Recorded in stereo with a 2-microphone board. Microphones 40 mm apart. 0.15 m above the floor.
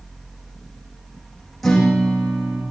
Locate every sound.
1.6 s a guitar: 5° left (ahead or behind), 7 m